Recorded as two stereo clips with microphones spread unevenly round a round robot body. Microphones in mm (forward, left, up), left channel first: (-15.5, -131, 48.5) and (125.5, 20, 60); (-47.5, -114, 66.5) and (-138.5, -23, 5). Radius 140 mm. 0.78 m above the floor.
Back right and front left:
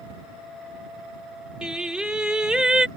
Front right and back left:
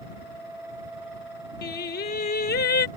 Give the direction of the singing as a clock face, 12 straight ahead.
1 o'clock.